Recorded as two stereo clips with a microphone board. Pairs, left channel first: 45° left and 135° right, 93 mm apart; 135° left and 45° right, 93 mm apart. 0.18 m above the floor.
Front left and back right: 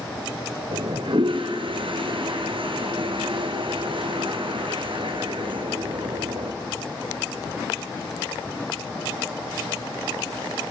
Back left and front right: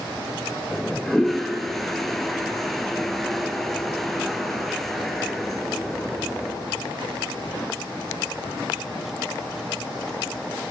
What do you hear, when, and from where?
0.7 s a toilet flushing: 140° right, 1.5 m